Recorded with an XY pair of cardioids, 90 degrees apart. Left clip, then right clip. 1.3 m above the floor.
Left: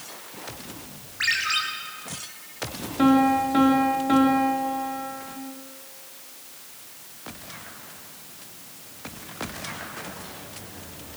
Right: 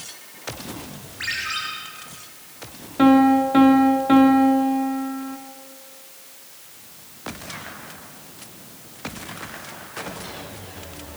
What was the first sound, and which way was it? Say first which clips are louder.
A ringtone: left 3 dB; 35° left.